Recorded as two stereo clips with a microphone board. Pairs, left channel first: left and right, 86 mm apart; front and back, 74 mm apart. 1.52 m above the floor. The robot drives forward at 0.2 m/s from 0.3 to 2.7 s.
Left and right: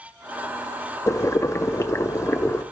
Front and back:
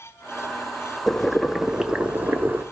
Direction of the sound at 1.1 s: 80° left.